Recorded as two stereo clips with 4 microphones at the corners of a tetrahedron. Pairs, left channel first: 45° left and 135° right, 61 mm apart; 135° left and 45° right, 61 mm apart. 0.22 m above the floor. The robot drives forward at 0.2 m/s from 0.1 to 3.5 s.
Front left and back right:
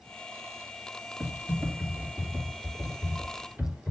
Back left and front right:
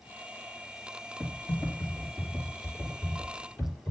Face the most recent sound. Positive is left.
turn(degrees=170)